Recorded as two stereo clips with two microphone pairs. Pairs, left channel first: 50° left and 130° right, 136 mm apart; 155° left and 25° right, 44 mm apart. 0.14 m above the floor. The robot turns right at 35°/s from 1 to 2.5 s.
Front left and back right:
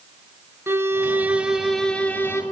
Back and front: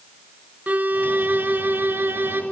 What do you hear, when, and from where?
0.7 s a violin: 60° right, 1.0 m; by 2.4 s 15° right, 1.0 m